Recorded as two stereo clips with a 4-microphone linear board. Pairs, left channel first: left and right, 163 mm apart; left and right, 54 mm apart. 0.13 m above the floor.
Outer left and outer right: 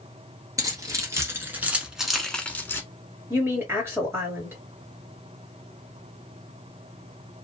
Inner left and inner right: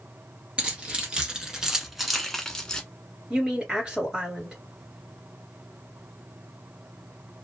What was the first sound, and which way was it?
Keys jangling, 20° right (ahead or behind).